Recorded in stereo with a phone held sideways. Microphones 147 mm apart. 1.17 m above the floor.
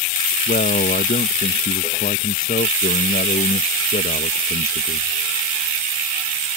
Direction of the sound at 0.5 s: 80° left.